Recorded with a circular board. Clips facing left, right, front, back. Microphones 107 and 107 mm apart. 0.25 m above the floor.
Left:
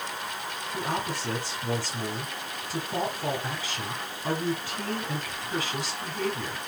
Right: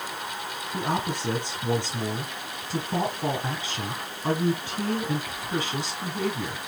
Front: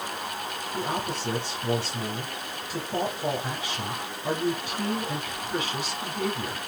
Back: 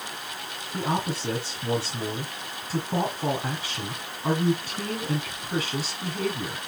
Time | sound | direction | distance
0.7 | a man speaking | 150° right | 1.4 m